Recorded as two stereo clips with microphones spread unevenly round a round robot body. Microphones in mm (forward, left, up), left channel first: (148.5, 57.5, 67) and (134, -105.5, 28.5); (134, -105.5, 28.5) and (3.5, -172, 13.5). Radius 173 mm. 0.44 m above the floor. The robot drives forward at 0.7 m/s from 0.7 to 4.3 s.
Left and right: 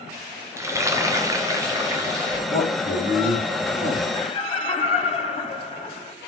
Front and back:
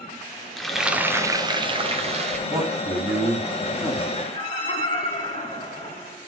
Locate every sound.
0.6 s frying: 70° right, 1.0 m; by 2.4 s 155° right, 1.4 m
2.5 s a man speaking: 145° left, 2.5 m; by 4.0 s 155° left, 3.5 m
4.2 s laughter: 30° left, 1.5 m; by 6.2 s 35° left, 1.5 m